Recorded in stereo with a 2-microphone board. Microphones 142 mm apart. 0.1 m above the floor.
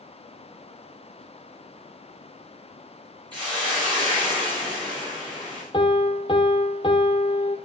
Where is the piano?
35° left (ahead or behind), 1.0 m.